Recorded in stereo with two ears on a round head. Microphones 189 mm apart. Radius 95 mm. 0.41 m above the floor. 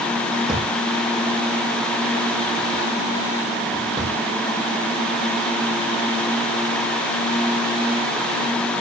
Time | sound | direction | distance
0.5 | a drawer | 5° right (ahead or behind) | 5.5 m